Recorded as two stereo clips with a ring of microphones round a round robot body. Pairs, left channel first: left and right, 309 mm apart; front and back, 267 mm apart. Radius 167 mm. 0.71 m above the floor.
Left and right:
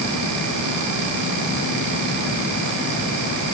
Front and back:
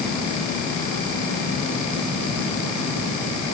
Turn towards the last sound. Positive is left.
No sound to turn to.